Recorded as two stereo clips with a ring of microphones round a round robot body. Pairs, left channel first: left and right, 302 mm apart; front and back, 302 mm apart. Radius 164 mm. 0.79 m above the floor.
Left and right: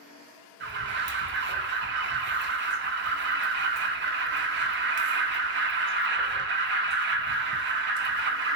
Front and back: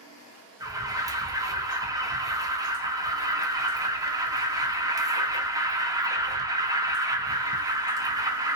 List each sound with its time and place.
0.6 s an alarm: 110° right, 0.6 m